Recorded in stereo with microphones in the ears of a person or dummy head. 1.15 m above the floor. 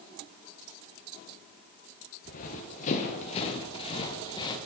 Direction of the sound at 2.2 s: 35° left (ahead or behind).